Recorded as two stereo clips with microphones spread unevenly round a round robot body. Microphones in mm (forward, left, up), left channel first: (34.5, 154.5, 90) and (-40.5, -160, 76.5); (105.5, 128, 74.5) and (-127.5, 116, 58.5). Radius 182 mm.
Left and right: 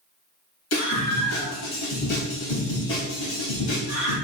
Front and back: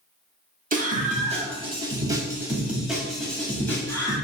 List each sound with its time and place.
0.7 s a scream: 130° left, 3 m; by 4.2 s 80° left, 3 m